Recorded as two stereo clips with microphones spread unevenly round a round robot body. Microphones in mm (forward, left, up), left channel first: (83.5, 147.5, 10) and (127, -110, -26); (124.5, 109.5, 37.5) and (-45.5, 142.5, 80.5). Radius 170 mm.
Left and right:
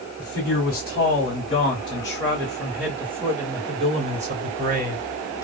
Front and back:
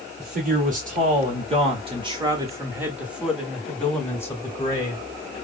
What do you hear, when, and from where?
0.2 s a man speaking: 140° left, 1.8 m; by 5.0 s 50° right, 1.9 m